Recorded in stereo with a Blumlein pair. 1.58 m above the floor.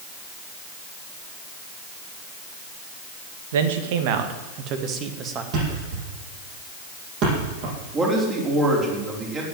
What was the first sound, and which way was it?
A man speaking, 60° right.